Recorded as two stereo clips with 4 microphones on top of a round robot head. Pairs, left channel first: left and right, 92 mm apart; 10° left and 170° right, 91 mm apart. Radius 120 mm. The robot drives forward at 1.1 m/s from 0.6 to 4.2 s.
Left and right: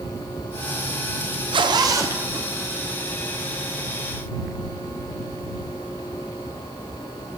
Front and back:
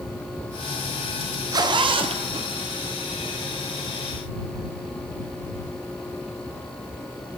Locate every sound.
1.5 s a zipper: 120° right, 0.7 m; by 3.0 s 165° right, 2.0 m